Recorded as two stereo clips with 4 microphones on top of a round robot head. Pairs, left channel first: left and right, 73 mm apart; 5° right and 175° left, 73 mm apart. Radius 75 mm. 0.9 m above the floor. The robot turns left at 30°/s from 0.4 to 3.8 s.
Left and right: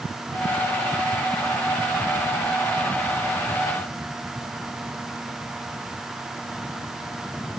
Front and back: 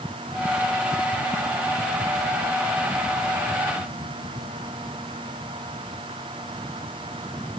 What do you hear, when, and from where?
Only background noise.